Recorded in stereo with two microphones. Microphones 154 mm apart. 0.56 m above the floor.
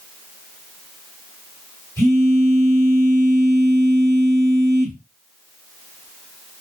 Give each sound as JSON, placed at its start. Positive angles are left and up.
{"t": 2.0, "sound": "a phone buzzing", "side_deg": -25, "distance_m": 2.0}